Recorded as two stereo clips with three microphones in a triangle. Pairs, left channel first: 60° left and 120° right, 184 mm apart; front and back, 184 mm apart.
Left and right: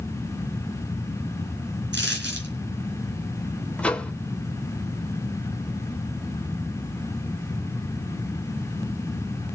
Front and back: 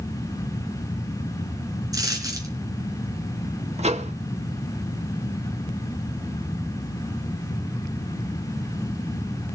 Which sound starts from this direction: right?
A dropped coin, at 1.9 s.